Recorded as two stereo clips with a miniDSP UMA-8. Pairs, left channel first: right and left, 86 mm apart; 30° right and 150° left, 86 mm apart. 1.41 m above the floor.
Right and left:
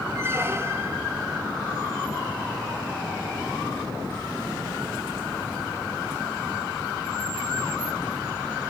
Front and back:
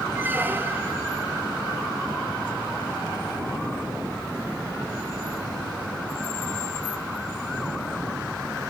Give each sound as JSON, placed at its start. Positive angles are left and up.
{"t": 0.1, "sound": "a squeak", "azimuth_deg": 110, "distance_m": 0.5}